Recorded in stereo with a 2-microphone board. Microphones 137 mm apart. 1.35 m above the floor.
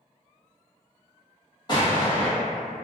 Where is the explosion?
35° left (ahead or behind), 1.1 m.